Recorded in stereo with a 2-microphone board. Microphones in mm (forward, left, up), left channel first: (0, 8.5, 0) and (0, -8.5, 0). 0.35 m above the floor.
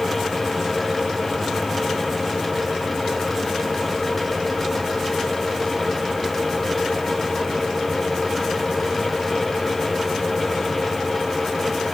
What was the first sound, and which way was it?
Only background noise.